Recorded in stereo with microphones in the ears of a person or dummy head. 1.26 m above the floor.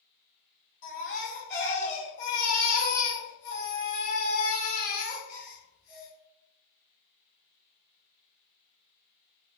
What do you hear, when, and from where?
0.8 s a baby crying: 65° left (ahead or behind), 1.6 m